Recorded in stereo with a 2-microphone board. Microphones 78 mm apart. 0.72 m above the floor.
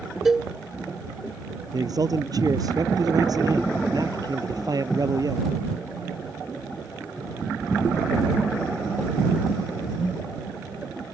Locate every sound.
0.2 s a cowbell: 5° right (ahead or behind)
1.7 s a man speaking: 55° right (ahead or behind)